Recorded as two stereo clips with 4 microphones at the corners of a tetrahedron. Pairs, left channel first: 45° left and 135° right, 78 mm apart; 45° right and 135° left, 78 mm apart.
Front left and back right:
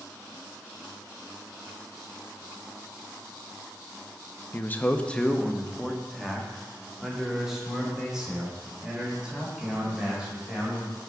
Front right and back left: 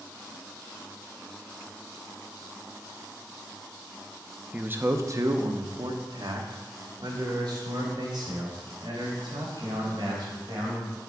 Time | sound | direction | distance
4.5 | a man speaking | 80° left | 0.5 m